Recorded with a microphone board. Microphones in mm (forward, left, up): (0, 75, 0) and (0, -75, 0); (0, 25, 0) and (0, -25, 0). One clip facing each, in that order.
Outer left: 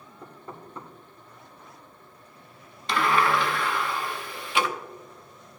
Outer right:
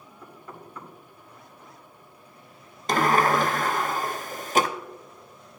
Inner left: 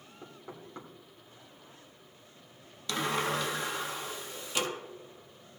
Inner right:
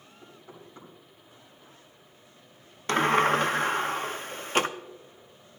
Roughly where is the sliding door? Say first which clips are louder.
Outer right 2 dB, inner right 9 dB; right.